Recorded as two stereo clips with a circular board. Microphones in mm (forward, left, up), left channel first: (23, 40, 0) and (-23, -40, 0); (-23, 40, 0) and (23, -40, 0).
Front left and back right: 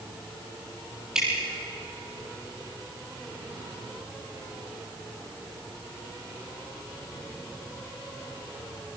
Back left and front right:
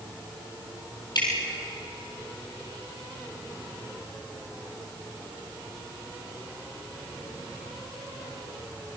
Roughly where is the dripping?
Behind left.